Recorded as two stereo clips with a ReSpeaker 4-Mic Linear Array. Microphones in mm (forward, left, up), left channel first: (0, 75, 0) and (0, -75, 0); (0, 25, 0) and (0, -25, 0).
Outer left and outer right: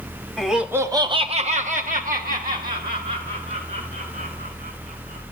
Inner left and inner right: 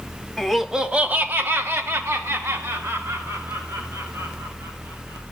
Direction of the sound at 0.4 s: Centre (ahead or behind).